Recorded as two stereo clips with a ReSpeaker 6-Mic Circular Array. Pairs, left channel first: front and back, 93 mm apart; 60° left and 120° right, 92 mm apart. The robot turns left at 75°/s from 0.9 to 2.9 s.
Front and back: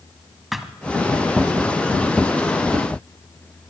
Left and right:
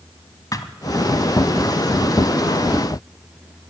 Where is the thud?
90° left, 1.3 m.